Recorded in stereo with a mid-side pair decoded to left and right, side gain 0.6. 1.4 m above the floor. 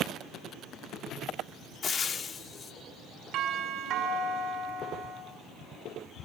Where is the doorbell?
60° right, 6.5 m.